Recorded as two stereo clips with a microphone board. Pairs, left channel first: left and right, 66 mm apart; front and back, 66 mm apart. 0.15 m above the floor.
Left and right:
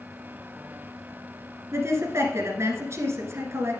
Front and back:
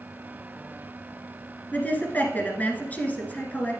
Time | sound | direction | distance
1.7 | a woman speaking | 60° right | 1.6 m